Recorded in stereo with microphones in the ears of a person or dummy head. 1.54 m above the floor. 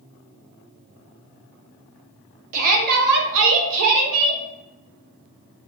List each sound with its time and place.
2.5 s a shout: 45° right (ahead or behind), 1.1 m; by 4.4 s 75° right (ahead or behind), 1.1 m